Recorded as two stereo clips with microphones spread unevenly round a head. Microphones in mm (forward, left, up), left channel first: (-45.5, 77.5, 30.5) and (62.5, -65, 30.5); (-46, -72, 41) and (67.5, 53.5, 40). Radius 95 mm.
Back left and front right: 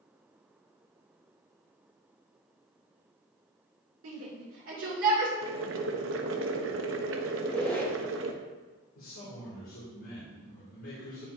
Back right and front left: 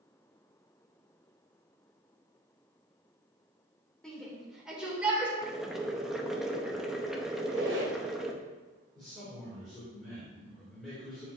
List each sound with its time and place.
4.0 s a shout: 45° right, 2.5 m; by 5.3 s 30° right, 3 m
5.4 s boiling: 40° right, 0.8 m
7.3 s a squeak: 45° left, 1.5 m
8.9 s a man speaking: 140° left, 2.5 m